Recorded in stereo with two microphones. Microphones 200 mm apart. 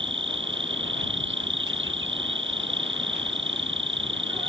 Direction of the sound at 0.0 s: 70° right (ahead or behind).